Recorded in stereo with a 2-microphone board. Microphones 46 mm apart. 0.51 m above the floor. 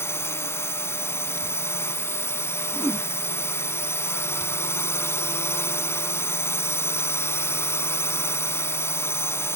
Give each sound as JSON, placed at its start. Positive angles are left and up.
{"t": 0.0, "sound": "a drone", "side_deg": 75}
{"t": 2.7, "sound": "a whoosh", "side_deg": -65}